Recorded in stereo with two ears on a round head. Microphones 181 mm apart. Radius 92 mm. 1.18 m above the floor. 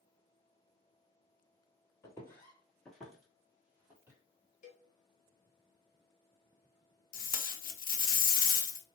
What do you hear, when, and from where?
2.0 s footsteps: 15° left (ahead or behind), 1.2 m; by 4.2 s 10° right (ahead or behind), 1.4 m
4.6 s a cowbell: 40° left (ahead or behind), 0.9 m
7.1 s tape being pulled: 50° left (ahead or behind), 0.8 m